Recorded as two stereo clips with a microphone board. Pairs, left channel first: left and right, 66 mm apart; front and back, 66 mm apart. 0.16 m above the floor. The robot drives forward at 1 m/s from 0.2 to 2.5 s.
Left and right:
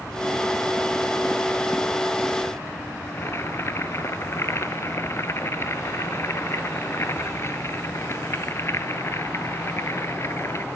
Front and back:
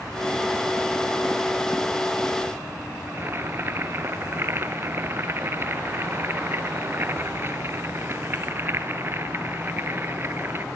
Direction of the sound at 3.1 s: 130° left.